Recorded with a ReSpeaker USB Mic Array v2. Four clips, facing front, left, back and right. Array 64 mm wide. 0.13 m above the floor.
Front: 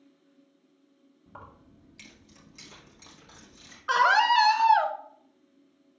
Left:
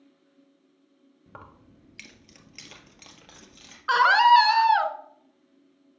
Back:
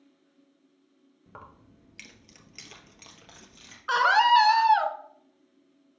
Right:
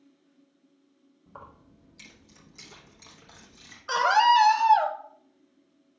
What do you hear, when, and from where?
1.3 s keys jangling: 115° left, 1.2 m; by 3.8 s 130° left, 2.5 m
3.9 s a scream: 95° left, 1.2 m